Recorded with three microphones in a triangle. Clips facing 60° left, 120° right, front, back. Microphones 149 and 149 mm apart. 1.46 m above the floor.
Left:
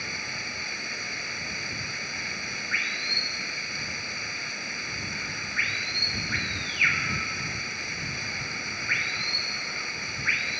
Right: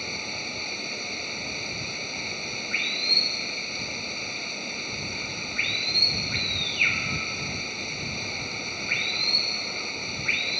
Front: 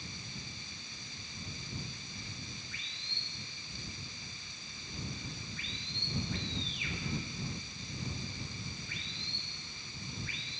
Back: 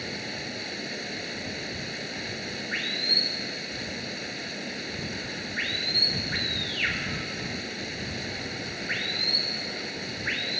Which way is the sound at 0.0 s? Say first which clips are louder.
Right 3 dB, back 13 dB; 170° left.